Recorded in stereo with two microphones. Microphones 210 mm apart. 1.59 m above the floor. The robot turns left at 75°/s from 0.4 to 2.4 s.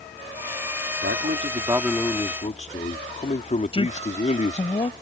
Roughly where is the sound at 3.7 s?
Left.